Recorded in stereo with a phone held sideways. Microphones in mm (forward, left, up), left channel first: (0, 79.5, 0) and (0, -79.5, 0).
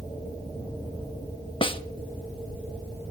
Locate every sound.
1.6 s a snare drum: 30° left (ahead or behind), 0.6 m